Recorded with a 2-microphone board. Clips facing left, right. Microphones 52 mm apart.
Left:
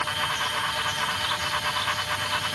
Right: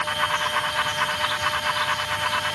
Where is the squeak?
No squeak in this recording.